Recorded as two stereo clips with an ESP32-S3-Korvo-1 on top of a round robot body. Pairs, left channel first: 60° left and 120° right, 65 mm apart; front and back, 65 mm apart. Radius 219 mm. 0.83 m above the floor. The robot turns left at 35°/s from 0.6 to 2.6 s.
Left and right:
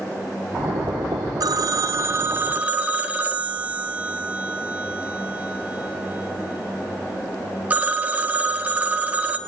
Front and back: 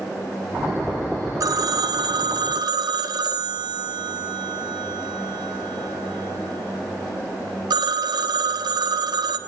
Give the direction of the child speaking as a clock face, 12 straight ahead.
I don't hear a child speaking.